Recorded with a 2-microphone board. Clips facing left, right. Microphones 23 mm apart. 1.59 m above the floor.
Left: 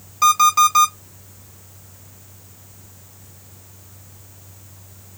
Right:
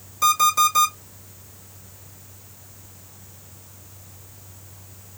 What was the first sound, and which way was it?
An alarm clock, 35° left (ahead or behind).